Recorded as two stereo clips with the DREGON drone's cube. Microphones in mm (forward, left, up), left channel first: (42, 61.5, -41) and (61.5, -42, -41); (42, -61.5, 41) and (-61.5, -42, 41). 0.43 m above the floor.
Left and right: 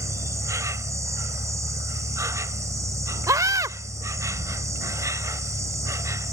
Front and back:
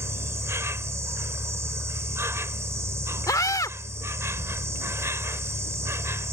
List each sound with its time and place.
0.0 s an insect: 130° right
3.3 s a scream: 45° right